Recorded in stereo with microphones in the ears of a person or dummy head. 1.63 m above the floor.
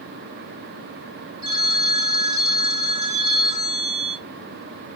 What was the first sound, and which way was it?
A phone ringing, 65° right (ahead or behind).